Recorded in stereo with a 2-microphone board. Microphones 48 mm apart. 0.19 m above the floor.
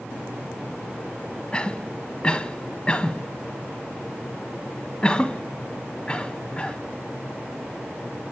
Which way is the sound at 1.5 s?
20° left (ahead or behind).